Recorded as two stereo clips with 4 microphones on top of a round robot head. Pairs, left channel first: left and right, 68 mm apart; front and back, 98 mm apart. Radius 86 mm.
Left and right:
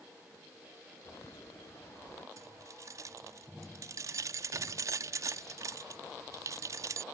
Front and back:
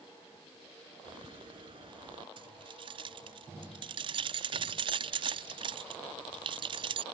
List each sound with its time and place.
1.1 s a bird: 145° left
2.4 s keys jangling: 140° right